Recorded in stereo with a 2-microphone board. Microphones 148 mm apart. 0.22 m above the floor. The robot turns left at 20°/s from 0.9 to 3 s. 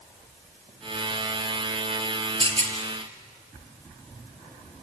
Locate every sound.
2.4 s a rattle: 35° right (ahead or behind), 2.5 m; by 2.8 s 45° right (ahead or behind), 2.5 m